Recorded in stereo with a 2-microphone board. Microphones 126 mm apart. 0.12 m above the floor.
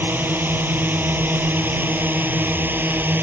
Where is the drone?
15° right (ahead or behind).